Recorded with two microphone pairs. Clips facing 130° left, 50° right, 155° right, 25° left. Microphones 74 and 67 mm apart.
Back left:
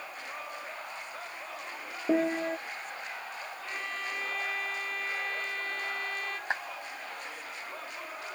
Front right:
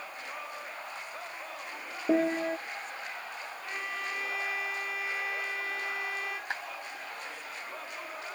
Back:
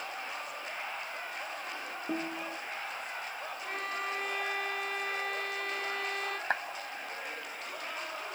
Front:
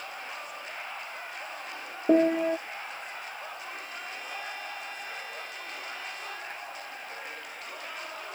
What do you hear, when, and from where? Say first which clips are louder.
2.1 s a piano: front right 1 dB, front 15 dB; 35° left
3.6 s a violin: front right 1 dB, back 4 dB; 135° right
6.5 s a clap: back left 6 dB, back 9 dB; 170° right